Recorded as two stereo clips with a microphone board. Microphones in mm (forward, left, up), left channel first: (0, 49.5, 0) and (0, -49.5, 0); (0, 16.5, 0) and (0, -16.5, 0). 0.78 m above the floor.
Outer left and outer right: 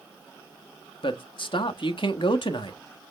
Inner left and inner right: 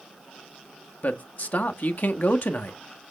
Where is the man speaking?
55° left (ahead or behind), 1.3 m.